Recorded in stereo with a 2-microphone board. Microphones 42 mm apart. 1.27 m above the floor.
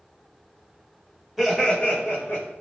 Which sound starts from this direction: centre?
Laughter, at 1.4 s.